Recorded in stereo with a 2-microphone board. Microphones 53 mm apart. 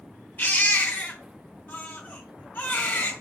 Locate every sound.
0.4 s a baby crying: 40° left (ahead or behind), 1.0 m